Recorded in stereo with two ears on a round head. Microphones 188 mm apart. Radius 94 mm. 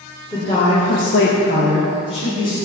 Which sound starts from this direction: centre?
A woman speaking, at 0.3 s.